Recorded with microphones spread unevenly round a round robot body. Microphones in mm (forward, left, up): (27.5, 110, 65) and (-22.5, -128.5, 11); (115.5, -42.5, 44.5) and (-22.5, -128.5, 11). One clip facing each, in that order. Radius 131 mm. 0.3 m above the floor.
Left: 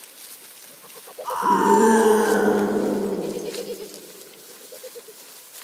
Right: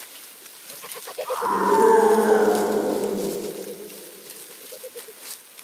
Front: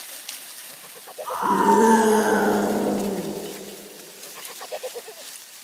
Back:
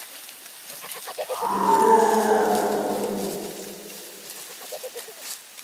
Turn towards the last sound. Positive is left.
turn(degrees=10)